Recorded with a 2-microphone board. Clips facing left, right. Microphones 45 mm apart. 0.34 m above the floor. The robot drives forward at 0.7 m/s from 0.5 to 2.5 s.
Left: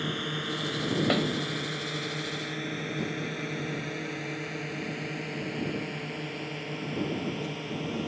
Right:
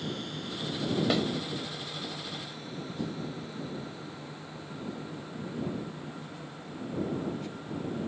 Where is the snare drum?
15° left (ahead or behind); by 1.2 s 20° left (ahead or behind).